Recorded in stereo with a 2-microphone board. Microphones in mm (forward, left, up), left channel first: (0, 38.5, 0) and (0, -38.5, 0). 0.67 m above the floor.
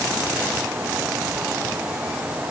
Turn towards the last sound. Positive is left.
No sound to turn to.